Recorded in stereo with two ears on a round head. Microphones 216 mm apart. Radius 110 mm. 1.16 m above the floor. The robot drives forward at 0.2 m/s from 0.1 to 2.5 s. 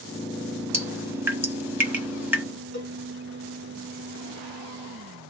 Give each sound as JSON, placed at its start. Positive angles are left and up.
{"t": 0.7, "sound": "dripping", "side_deg": -10, "distance_m": 1.3}
{"t": 2.7, "sound": "a cowbell", "side_deg": -25, "distance_m": 1.9}